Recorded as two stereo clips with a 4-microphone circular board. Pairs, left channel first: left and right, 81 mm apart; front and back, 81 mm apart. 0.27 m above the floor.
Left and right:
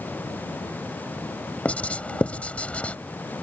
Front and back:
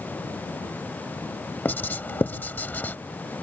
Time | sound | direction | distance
1.6 | writing | 40° left | ?